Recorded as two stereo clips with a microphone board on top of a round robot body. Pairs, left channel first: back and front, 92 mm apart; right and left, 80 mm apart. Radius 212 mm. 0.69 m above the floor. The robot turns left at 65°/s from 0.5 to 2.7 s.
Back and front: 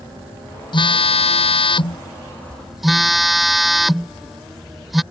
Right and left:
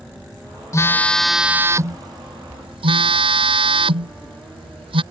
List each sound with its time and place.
0.7 s a phone buzzing: 145° right; by 5.0 s 90° left